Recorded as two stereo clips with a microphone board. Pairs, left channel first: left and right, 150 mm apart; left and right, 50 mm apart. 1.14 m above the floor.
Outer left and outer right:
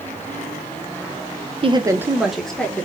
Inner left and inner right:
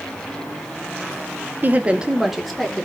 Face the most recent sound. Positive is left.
turn(degrees=10)  # may be behind; listen again after turning